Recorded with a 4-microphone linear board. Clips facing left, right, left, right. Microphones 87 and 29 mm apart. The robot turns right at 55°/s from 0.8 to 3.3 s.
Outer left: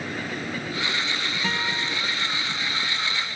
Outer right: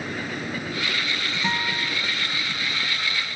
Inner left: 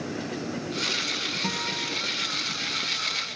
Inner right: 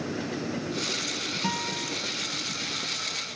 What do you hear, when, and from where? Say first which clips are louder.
1.4 s a guitar: outer right 2 dB, inner left 1 dB; 15° right (ahead or behind), 1.1 m; by 1.9 s centre (ahead or behind), 1.1 m